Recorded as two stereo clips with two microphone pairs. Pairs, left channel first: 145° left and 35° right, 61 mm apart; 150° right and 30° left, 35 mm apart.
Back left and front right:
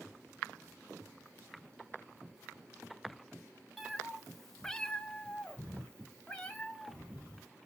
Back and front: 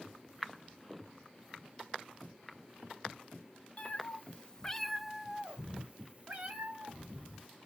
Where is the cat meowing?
125° right, 0.9 m; by 7.5 s 70° left, 2 m.